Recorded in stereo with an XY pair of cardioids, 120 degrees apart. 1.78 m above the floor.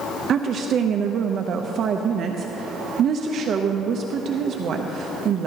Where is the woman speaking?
50° right, 0.7 m.